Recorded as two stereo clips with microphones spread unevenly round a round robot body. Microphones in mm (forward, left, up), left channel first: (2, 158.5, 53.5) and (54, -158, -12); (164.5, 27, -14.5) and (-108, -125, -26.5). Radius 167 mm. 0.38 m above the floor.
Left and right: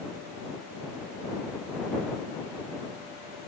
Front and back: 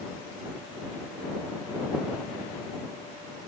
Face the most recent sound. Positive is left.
No sound to turn to.